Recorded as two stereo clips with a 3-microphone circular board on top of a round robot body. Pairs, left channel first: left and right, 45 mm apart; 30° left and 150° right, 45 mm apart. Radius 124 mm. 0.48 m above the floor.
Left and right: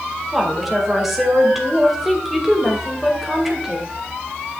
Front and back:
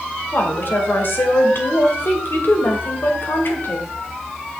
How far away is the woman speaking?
About 2 m.